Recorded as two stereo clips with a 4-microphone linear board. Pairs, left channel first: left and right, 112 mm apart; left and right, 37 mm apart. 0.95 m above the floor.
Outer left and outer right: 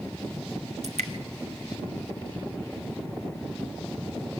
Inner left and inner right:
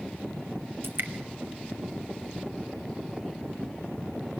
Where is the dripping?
80° right, 1.9 m.